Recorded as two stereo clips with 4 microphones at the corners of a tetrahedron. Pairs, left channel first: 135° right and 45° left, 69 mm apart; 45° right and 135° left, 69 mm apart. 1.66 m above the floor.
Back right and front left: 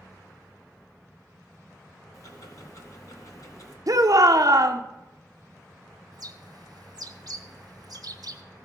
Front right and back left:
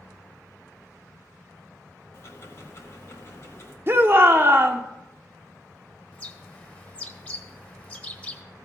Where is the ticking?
95° right, 1.7 m.